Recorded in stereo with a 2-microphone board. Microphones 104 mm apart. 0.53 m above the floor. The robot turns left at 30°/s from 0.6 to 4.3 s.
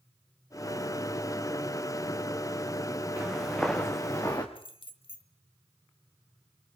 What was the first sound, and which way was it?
Footsteps, 10° right (ahead or behind).